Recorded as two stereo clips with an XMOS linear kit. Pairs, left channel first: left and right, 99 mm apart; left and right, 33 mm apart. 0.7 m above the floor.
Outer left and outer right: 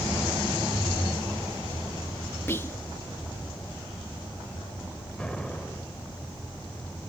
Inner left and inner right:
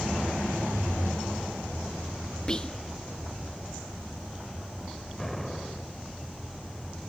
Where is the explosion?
10° left (ahead or behind), 3 m.